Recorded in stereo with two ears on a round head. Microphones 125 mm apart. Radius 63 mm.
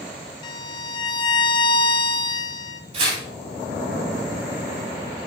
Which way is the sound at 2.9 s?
45° right (ahead or behind).